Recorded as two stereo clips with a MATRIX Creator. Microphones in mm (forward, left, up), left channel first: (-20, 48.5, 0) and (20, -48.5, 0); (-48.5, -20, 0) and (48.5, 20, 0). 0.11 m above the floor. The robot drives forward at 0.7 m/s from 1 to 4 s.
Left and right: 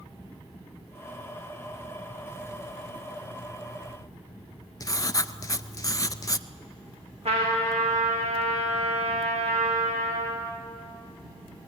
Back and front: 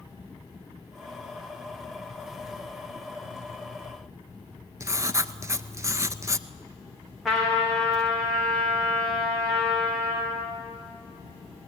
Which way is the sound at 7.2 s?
65° right.